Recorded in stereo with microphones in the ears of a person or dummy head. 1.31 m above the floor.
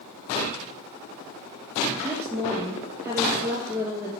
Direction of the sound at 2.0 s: 10° right (ahead or behind).